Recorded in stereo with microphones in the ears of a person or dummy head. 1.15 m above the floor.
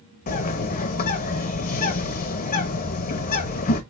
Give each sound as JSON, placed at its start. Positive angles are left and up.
{"t": 0.3, "sound": "a bird", "side_deg": 40, "distance_m": 0.8}